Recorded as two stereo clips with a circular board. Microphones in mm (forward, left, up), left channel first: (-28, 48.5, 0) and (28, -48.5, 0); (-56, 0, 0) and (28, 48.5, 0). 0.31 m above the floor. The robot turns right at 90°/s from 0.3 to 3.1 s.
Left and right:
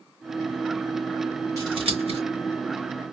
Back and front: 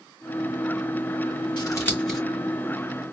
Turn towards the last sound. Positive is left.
turn(degrees=25)